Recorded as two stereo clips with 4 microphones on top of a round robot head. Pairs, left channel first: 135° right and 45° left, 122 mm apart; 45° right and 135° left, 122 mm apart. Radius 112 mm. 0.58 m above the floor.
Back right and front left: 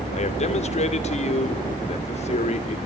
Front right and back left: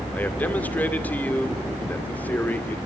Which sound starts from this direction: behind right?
A man speaking, at 0.1 s.